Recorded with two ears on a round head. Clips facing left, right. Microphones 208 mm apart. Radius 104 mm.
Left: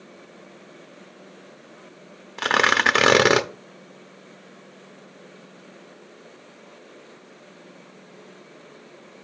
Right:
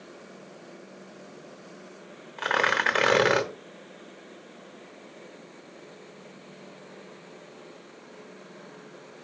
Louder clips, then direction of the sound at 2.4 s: Left 4 dB; 60° left (ahead or behind).